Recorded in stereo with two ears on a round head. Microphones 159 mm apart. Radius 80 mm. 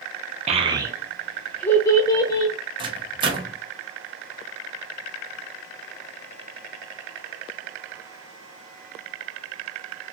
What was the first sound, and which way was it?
A child speaking, 40° right (ahead or behind).